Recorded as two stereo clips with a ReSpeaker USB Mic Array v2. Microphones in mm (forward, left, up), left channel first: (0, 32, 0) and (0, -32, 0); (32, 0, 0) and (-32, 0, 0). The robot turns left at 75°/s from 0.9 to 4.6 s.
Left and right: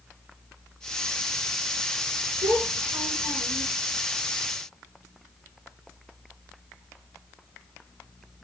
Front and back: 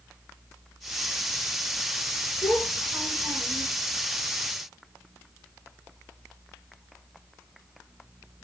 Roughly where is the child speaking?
Right.